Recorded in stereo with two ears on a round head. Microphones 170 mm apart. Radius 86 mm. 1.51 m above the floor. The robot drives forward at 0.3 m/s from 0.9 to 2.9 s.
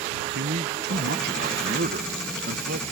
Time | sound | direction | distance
0.3 | a man speaking | 60° right (ahead or behind) | ?